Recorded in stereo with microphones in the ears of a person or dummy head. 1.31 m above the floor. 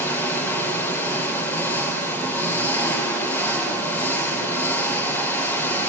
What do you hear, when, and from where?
0.0 s an engine running: 10° left (ahead or behind), 3.5 m